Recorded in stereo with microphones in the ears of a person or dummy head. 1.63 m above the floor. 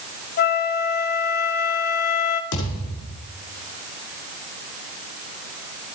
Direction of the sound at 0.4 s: 50° left (ahead or behind).